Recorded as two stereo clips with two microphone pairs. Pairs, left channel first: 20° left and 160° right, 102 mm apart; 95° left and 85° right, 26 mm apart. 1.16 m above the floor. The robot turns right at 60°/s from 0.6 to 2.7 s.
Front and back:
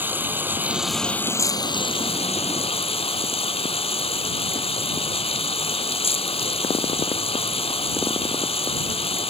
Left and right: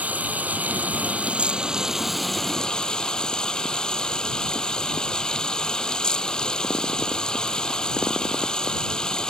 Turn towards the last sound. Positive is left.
turn(degrees=40)